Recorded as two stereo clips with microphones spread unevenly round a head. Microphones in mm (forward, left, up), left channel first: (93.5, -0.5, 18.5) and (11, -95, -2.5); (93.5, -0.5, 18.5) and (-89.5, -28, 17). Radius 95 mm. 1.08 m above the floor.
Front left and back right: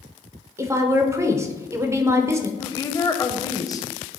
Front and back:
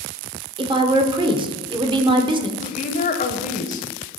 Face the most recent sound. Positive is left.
turn(degrees=-10)